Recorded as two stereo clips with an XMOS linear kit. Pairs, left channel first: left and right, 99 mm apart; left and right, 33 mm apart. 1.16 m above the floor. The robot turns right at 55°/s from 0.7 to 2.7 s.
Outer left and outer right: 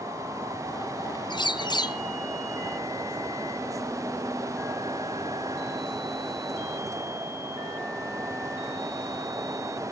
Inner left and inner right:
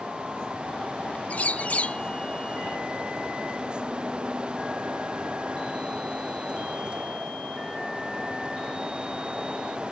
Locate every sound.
1.3 s a bird: 80° left, 0.5 m; by 2.0 s 120° left, 0.5 m